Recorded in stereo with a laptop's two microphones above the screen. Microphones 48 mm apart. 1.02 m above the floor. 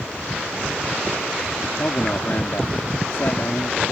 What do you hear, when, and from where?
1.8 s a man speaking: 60° left (ahead or behind)